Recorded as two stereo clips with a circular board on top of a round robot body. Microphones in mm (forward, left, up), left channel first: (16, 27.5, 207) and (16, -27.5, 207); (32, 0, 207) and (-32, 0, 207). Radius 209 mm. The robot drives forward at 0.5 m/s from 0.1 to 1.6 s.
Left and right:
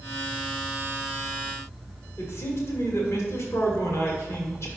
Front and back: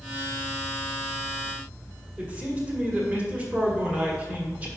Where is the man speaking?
115° left, 2.0 m.